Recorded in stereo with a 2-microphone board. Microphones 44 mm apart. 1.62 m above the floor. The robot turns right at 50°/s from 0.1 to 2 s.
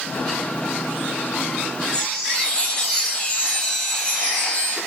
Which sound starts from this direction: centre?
A chime, at 1.9 s.